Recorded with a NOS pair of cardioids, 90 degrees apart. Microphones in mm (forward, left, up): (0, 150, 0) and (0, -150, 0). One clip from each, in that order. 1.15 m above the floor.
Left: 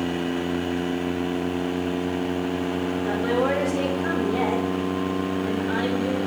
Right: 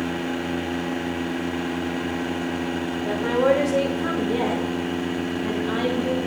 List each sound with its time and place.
3.0 s a woman speaking: 40° right, 3.5 m; by 6.2 s 70° right, 4.5 m